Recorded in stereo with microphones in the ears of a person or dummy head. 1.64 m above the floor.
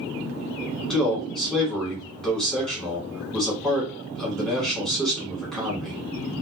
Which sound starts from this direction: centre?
A man speaking, at 0.9 s.